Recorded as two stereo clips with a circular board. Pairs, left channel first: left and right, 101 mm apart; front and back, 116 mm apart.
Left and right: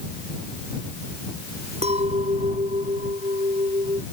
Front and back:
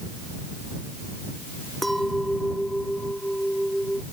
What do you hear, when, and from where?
1.8 s a clink: 90° right